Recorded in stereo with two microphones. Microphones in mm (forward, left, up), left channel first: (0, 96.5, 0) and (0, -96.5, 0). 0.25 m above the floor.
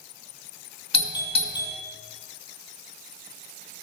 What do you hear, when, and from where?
0.9 s a doorbell: 30° left (ahead or behind), 2 m